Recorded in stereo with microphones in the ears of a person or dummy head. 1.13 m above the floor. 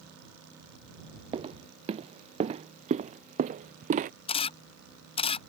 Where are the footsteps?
20° right (ahead or behind); by 4.1 s 35° right (ahead or behind).